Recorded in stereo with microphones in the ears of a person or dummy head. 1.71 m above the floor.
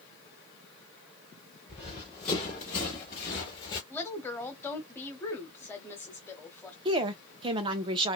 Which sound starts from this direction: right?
A woman speaking, at 6.8 s.